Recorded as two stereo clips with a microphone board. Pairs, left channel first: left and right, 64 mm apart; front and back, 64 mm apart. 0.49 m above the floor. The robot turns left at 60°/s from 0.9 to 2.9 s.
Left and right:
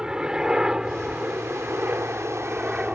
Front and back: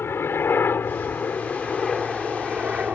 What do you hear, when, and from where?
0.0 s a helicopter: 20° right; by 3.0 s 135° right